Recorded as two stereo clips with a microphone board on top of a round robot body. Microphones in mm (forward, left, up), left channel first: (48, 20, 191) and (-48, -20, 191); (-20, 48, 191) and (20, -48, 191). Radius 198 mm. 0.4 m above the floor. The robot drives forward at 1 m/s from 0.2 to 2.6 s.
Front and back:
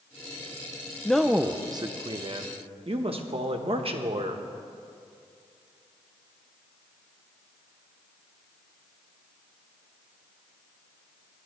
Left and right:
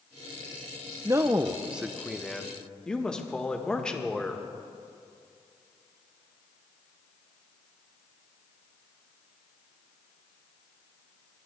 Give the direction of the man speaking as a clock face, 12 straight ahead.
2 o'clock.